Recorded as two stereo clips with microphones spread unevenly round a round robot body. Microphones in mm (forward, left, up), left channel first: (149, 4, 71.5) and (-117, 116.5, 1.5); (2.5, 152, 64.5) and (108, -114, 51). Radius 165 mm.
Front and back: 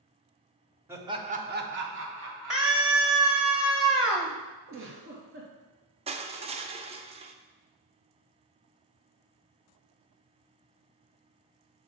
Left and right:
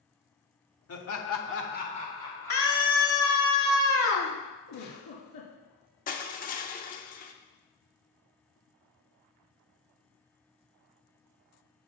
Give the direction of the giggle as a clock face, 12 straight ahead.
8 o'clock.